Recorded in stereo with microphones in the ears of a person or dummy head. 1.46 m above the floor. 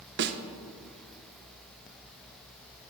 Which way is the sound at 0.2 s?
55° right (ahead or behind).